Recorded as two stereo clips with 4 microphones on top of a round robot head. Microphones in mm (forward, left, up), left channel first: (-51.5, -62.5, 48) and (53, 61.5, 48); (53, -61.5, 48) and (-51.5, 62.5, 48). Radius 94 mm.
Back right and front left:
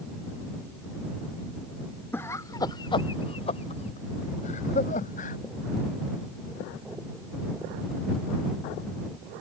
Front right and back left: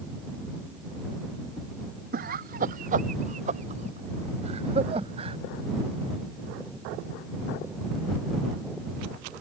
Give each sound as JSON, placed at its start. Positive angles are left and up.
{"t": 2.1, "sound": "laughter", "azimuth_deg": 155}